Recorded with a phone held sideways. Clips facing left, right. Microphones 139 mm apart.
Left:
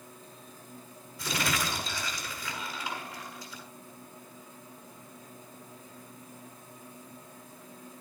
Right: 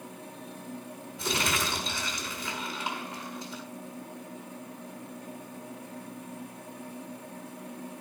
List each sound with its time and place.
0.0 s a machine running: 70° right (ahead or behind), 2 m
1.2 s crumpling: 25° right (ahead or behind), 7 m